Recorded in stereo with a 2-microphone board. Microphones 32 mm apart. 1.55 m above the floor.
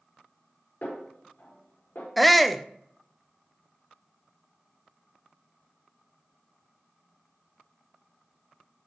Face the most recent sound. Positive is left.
turn(degrees=0)  # may be behind; listen again after turning